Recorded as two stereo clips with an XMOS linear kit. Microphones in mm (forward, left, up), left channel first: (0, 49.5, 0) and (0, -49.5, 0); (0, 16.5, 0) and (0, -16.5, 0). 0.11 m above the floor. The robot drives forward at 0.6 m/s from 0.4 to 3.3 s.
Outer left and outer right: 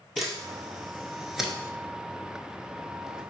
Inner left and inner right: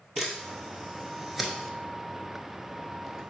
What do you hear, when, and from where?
0.2 s a camera shutter: 5° right (ahead or behind), 1.1 m